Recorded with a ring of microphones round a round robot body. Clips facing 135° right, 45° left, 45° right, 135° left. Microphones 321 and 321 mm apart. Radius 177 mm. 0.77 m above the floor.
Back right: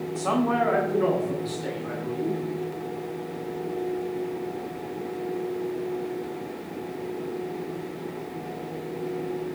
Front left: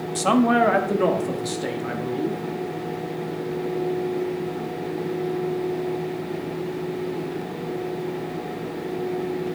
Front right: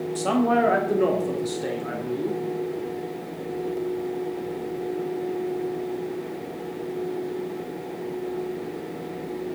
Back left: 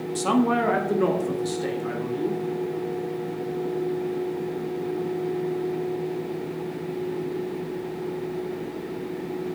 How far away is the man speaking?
About 1.4 m.